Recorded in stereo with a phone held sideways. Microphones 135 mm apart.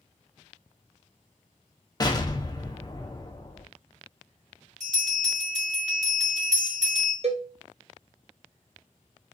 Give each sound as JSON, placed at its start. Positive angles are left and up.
{"t": 2.0, "sound": "an explosion", "side_deg": 30, "distance_m": 0.5}
{"t": 4.8, "sound": "a bell", "side_deg": -60, "distance_m": 1.3}
{"t": 7.2, "sound": "a cowbell", "side_deg": -50, "distance_m": 0.6}